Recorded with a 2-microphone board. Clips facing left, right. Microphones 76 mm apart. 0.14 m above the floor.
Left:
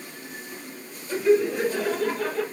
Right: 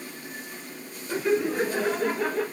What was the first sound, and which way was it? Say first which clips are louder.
Laughter: left 4 dB; 25° right (ahead or behind).